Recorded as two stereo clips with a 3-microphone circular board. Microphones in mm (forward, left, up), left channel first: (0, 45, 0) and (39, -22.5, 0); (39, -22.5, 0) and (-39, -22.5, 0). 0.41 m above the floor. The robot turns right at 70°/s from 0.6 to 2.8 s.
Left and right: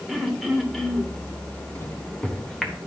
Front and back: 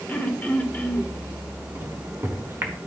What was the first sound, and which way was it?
Throat clearing, 25° left.